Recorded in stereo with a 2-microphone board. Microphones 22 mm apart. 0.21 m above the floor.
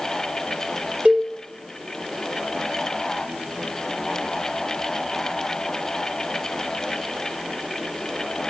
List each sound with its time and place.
1.1 s a cowbell: 75° right (ahead or behind), 3 m